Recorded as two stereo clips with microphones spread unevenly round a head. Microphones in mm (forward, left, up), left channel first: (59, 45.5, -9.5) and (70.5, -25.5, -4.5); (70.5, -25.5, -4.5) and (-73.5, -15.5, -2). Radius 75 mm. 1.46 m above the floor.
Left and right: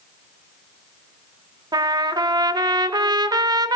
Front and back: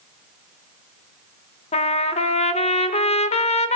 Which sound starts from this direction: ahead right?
A trumpet, at 1.7 s.